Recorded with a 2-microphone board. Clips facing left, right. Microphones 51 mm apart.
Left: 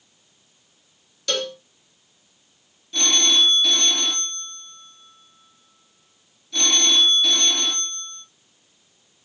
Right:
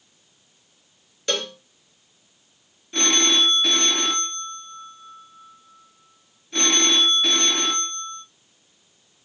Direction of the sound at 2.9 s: 35° right (ahead or behind).